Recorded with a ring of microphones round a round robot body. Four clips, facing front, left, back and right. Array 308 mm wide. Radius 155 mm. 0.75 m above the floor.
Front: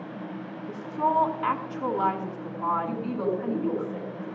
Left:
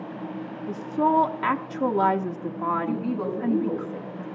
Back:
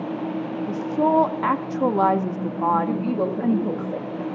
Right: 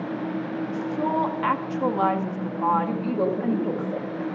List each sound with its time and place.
0.7 s a woman speaking: 165° left, 1.0 m
2.9 s a woman speaking: 145° right, 3 m